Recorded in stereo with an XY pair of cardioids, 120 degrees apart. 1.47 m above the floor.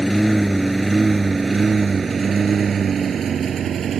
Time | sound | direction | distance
0.0 | a lawn mower | 5° right | ?